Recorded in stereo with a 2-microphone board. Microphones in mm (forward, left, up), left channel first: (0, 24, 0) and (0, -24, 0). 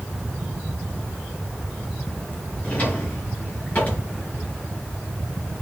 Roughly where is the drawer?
Left.